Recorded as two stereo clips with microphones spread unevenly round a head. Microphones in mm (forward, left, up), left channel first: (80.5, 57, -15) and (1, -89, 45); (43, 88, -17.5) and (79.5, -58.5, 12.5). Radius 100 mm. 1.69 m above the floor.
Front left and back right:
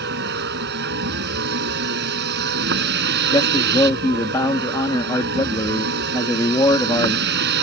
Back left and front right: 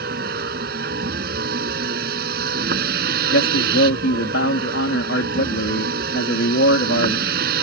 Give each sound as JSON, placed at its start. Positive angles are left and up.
{"t": 0.0, "sound": "a vehicle", "azimuth_deg": -110}
{"t": 3.3, "sound": "a man speaking", "azimuth_deg": 140}